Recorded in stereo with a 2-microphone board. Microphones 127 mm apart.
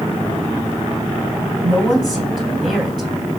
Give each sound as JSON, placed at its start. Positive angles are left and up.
{"t": 1.6, "sound": "a woman speaking", "side_deg": -5, "distance_m": 2.5}